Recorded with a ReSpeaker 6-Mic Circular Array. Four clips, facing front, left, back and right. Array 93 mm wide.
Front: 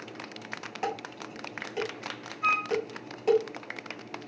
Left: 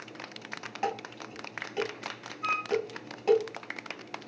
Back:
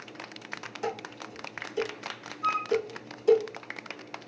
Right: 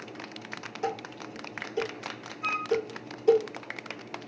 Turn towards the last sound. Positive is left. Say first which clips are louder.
# right 1 dB, even
turn(degrees=-5)